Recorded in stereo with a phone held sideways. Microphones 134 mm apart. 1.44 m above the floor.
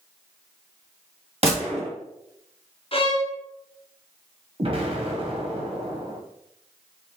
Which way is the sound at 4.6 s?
45° right (ahead or behind).